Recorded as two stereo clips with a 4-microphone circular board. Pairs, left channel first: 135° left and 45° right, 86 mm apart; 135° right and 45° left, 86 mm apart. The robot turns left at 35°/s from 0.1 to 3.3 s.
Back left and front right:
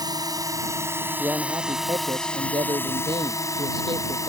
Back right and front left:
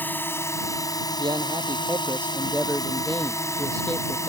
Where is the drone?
70° right; by 4.3 s 175° left.